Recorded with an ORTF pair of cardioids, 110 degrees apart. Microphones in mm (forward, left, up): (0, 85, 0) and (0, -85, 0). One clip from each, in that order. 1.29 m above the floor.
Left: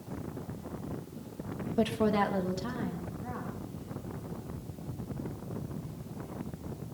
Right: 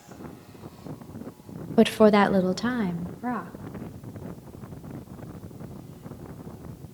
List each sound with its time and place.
1.8 s a woman speaking: 45° right, 0.5 m; by 3.5 s 70° right, 2 m